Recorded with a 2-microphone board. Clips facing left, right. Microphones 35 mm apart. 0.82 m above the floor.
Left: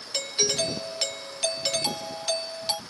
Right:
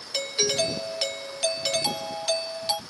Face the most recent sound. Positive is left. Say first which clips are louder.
# right 2 dB
turn(degrees=-10)  # may be behind; listen again after turning